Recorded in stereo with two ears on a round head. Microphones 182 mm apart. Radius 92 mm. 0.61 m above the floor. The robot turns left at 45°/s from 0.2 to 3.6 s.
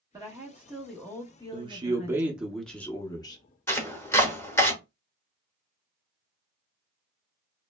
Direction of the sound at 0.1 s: 155° right.